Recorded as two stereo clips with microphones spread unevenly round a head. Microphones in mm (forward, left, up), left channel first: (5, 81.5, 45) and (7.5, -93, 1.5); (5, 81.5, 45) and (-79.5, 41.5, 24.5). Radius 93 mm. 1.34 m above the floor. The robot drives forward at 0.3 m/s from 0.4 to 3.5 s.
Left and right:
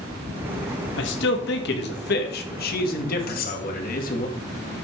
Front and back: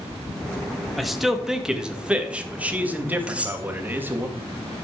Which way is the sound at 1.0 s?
115° left.